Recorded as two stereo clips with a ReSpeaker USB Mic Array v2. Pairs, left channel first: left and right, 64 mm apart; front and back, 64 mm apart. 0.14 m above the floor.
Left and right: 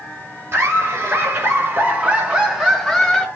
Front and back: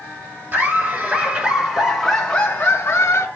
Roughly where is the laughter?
Behind right.